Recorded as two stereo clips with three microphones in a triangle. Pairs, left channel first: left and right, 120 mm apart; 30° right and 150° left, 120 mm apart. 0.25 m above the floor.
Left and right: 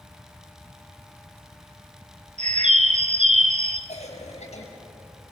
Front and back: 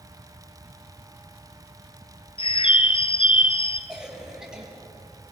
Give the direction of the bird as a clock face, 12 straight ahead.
2 o'clock.